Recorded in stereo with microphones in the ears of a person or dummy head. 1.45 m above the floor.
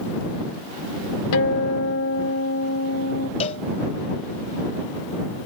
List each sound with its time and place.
1.3 s a guitar: 75° left (ahead or behind)
3.4 s a cowbell: 35° left (ahead or behind)